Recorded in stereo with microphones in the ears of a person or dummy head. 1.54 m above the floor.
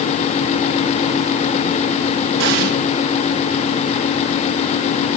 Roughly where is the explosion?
Right.